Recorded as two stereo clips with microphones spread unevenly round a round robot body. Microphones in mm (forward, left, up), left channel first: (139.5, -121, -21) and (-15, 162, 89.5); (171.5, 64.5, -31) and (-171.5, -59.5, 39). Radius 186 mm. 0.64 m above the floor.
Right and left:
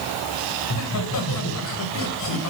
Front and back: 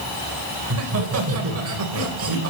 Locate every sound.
0.6 s laughter: 105° right, 3.5 m